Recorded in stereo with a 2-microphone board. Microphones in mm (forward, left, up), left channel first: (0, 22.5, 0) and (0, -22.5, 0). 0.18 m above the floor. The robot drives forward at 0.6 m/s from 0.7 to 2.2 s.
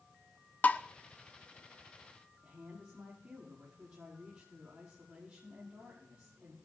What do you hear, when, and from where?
0.6 s tapping: 35° left (ahead or behind), 0.6 m
2.4 s a woman speaking: 30° right (ahead or behind), 5.5 m